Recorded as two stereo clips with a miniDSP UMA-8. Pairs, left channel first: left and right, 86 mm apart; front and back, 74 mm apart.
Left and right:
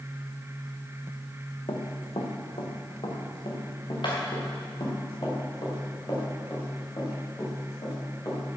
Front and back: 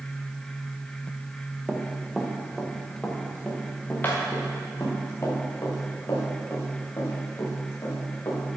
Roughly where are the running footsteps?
Left.